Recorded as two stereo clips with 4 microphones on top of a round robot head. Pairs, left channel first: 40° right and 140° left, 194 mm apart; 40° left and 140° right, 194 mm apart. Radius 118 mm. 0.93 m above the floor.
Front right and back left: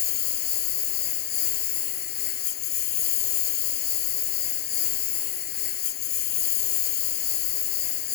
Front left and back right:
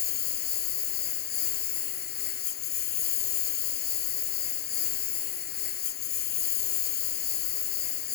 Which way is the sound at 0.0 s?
Straight ahead.